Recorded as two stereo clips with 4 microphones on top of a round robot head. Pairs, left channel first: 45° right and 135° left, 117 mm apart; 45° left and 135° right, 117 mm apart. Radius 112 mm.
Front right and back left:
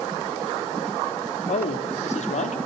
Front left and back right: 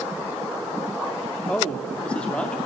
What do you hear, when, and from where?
1.5 s a man speaking: 35° right, 2.5 m